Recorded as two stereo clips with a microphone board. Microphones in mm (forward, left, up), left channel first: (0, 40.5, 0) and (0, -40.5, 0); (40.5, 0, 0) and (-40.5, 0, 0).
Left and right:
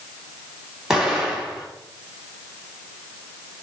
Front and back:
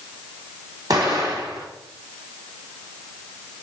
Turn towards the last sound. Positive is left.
turn(degrees=-170)